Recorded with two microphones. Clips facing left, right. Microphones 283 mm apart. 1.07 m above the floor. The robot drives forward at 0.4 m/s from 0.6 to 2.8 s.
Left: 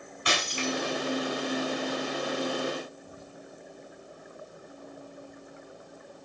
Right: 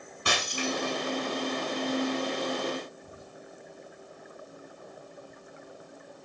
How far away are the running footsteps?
No running footsteps in this recording.